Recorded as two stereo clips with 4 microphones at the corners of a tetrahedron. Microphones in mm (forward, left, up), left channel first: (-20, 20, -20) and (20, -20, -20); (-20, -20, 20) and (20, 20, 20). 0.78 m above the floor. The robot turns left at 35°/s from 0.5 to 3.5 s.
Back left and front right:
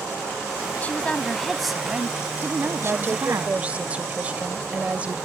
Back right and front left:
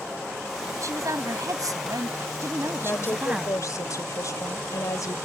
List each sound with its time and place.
0.8 s a woman speaking: 75° left; by 3.5 s 25° right
2.8 s a woman speaking: 90° right; by 5.2 s 115° right